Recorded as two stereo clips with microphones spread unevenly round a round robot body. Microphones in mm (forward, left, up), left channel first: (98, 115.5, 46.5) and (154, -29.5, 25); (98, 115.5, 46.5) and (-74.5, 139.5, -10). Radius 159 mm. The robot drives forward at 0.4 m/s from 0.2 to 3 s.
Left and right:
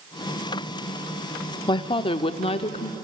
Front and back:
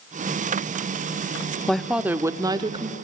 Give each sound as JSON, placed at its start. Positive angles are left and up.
{"t": 1.7, "sound": "a woman speaking", "azimuth_deg": 125, "distance_m": 0.7}